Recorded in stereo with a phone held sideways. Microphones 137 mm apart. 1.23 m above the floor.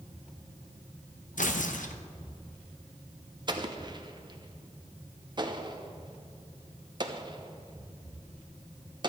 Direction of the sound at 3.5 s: 35° right (ahead or behind).